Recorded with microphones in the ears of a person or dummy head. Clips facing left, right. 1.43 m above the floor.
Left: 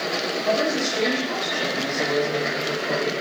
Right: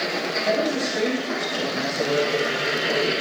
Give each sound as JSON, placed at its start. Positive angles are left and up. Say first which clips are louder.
{"t": 0.4, "sound": "a woman speaking", "louder": "even", "side_deg": -30, "distance_m": 9.0}